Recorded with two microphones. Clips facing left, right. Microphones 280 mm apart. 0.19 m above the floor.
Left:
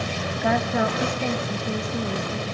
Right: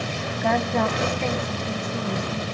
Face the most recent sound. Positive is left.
turn(degrees=15)  # may be behind; listen again after turning